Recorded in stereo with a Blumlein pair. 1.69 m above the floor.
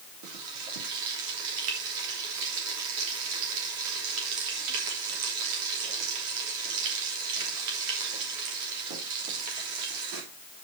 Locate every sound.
0.2 s frying: 45° right, 3 m